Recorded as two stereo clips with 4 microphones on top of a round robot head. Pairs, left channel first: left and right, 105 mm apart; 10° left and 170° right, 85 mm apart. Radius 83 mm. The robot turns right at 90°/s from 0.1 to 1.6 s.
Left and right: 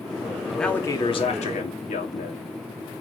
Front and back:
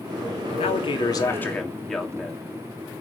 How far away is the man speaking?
About 3 m.